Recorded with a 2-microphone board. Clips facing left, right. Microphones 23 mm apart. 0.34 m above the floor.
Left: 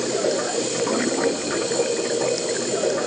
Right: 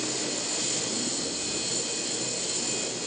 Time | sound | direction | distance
0.0 | running water | 80° left | ?